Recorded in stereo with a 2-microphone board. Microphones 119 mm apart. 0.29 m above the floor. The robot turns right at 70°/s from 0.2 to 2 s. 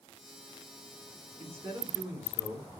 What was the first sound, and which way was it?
A man speaking, 65° right.